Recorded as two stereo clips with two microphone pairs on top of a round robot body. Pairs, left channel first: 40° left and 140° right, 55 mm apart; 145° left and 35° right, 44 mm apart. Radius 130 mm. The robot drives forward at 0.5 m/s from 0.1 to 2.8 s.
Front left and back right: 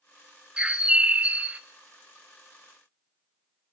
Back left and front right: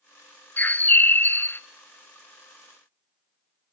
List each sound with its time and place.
0.6 s a bird: 140° left, 1.1 m; by 1.6 s 155° left, 1.5 m